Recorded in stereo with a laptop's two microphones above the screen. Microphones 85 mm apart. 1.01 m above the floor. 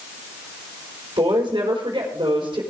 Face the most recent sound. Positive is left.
turn(degrees=-80)